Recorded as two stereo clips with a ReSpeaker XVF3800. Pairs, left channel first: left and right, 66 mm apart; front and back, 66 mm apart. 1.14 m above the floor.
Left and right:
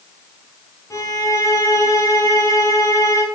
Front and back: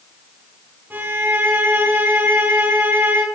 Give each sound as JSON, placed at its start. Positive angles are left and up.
{"t": 0.9, "sound": "a violin", "azimuth_deg": 120, "distance_m": 6.5}